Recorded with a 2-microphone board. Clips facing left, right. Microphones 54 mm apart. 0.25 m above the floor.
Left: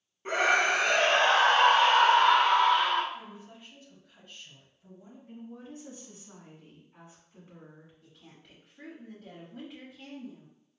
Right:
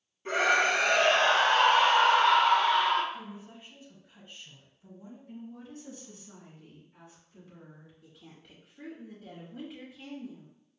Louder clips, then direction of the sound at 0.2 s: Even; 25° left (ahead or behind).